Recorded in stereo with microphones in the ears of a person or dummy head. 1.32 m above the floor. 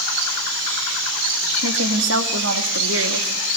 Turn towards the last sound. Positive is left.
turn(degrees=-75)  # may be behind; listen again after turning